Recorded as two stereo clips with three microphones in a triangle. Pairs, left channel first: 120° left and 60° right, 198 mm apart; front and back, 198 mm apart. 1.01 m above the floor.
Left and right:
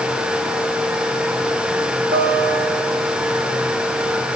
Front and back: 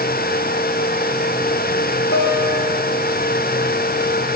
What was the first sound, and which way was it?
A guitar, 20° right.